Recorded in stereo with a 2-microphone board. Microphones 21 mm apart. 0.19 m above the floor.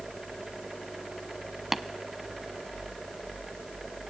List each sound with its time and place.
1.7 s tapping: 15° right (ahead or behind), 0.6 m